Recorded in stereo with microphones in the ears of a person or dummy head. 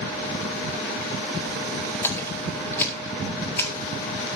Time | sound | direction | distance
2.0 | a splash | 10° left (ahead or behind) | 4 m